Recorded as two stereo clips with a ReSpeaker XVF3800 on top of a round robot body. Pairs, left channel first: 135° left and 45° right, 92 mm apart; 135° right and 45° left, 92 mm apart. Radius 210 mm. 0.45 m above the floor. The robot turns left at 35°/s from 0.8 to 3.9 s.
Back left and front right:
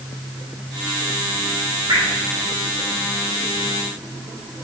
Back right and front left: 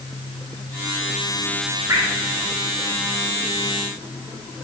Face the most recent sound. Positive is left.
turn(degrees=-75)